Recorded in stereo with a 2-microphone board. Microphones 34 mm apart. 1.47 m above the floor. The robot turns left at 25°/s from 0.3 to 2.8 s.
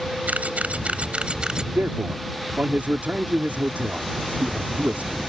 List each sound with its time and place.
0.3 s a camera shutter: 55° right (ahead or behind); by 1.6 s 25° right (ahead or behind)
1.7 s a man speaking: 75° right (ahead or behind); by 5.2 s 50° right (ahead or behind)